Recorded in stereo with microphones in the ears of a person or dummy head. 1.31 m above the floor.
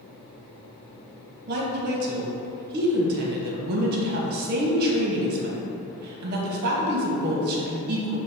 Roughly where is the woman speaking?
Right.